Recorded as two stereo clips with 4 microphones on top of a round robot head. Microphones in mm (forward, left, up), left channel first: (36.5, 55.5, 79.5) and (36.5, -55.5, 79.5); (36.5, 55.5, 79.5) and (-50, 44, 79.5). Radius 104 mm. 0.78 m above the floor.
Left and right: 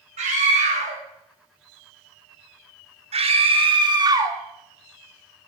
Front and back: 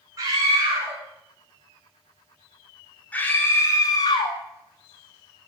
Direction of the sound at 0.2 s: 115° right.